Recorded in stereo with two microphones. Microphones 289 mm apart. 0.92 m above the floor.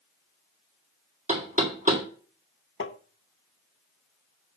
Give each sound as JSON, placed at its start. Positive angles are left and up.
{"t": 1.3, "sound": "knocking", "side_deg": -25, "distance_m": 1.8}
{"t": 2.8, "sound": "tapping", "side_deg": 45, "distance_m": 0.7}